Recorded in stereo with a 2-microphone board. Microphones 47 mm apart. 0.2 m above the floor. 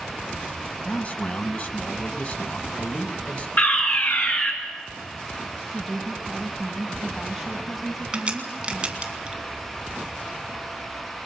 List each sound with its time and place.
0.8 s a man speaking: 35° left (ahead or behind), 1.2 m
3.6 s a fire alarm: 45° left (ahead or behind), 3.5 m
5.7 s a woman speaking: 5° left (ahead or behind), 1.5 m
8.1 s a crack: 25° right (ahead or behind), 2 m